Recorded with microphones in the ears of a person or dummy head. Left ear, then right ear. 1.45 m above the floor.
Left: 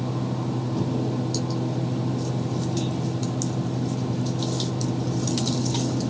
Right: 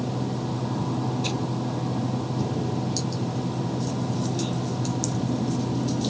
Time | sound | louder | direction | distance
0.0 | a fan | even | 40° right (ahead or behind) | 1.2 m